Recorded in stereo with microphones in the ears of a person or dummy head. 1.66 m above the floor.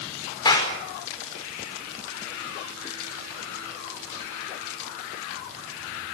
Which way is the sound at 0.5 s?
25° left (ahead or behind).